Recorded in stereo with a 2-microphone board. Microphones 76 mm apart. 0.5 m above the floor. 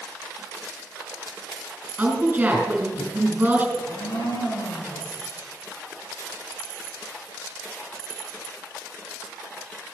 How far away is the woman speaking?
About 5 m.